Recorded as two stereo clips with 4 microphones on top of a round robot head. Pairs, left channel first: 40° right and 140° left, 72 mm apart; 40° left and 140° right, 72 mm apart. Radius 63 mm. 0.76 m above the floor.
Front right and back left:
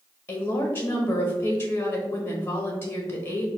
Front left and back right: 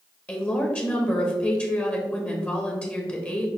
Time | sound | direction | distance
0.3 | a woman speaking | 10° right | 0.9 m